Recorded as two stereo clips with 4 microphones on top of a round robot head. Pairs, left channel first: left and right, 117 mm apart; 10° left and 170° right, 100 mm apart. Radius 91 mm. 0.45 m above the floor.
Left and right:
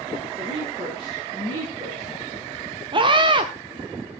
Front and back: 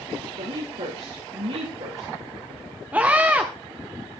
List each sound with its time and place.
0.4 s a woman speaking: 150° right, 10 m
2.9 s a scream: 100° right, 1.2 m